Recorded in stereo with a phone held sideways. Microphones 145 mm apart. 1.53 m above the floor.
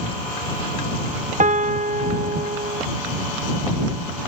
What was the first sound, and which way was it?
A piano, 55° right (ahead or behind).